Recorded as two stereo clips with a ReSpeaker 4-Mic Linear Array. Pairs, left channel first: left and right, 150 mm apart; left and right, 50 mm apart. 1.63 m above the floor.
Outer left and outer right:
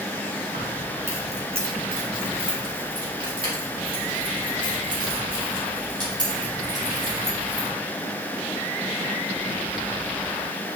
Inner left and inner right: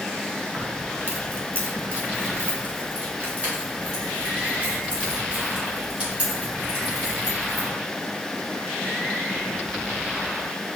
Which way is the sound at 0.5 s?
50° right (ahead or behind).